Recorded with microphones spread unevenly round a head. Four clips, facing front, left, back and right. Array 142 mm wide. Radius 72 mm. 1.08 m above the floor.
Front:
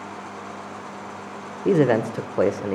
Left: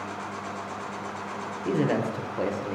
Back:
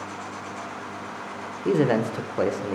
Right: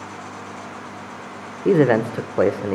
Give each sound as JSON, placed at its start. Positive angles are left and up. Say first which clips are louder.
{"t": 1.6, "sound": "a man speaking", "louder": "right 10 dB, front 3 dB", "azimuth_deg": -55, "distance_m": 0.6}